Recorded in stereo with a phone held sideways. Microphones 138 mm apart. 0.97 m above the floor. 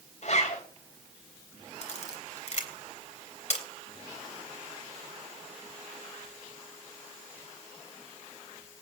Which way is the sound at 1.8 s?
55° left (ahead or behind).